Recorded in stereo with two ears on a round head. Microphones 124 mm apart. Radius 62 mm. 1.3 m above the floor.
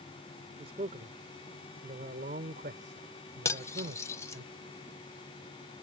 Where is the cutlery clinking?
20° left (ahead or behind).